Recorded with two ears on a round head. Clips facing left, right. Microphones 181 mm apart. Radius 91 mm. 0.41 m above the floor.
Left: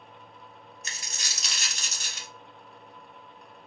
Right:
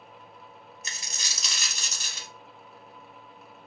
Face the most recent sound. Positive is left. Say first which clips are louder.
# left 1 dB
turn(degrees=-70)  # may be behind; listen again after turning